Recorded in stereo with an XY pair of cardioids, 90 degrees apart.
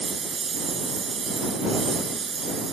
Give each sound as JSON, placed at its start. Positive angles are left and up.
{"t": 0.0, "sound": "a lawn mower", "azimuth_deg": -40}